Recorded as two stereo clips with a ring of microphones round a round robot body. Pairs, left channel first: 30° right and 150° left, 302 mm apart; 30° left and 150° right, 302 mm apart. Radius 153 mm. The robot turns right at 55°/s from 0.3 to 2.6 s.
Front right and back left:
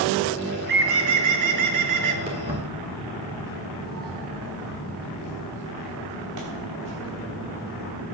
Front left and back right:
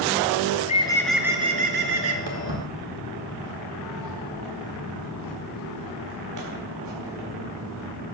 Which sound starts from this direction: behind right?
Footsteps, at 2.3 s.